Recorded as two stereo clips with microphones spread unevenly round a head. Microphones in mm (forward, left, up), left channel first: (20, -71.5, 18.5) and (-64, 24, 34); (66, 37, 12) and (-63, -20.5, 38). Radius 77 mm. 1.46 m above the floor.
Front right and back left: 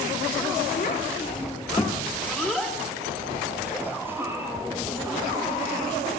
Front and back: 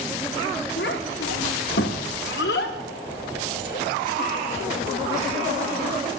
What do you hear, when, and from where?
0.8 s a child speaking: 5° right, 1.9 m; by 6.1 s 65° left, 5.5 m